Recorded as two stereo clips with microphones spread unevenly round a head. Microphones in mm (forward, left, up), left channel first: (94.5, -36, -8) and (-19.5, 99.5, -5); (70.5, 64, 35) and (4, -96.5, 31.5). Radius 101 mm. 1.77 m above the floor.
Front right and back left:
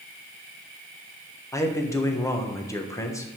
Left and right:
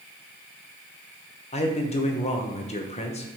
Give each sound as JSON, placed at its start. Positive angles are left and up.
{"t": 1.5, "sound": "a man speaking", "azimuth_deg": 20, "distance_m": 1.2}